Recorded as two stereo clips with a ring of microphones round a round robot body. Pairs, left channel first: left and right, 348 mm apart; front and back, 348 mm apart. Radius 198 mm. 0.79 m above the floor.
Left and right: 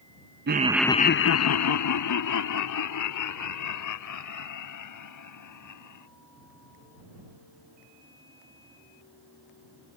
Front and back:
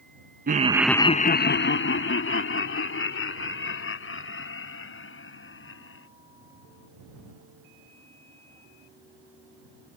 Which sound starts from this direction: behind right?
Laughter, at 0.5 s.